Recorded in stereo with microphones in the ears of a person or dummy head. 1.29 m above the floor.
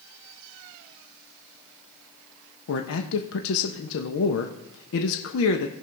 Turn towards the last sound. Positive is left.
turn(degrees=80)